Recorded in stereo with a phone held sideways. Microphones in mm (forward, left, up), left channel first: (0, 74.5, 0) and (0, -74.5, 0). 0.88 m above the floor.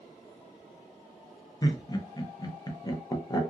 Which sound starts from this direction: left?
Laughter, at 1.6 s.